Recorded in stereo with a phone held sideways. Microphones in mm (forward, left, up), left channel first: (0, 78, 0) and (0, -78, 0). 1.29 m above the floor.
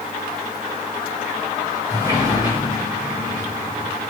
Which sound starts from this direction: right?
A sliding door, at 1.9 s.